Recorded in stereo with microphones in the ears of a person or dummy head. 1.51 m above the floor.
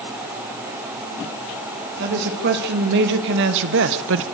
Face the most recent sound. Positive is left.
turn(degrees=-80)